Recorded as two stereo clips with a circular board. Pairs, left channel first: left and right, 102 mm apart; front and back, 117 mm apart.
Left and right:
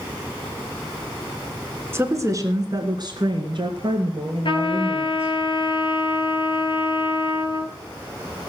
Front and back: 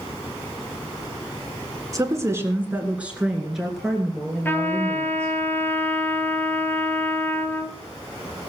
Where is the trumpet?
70° left, 1.5 m.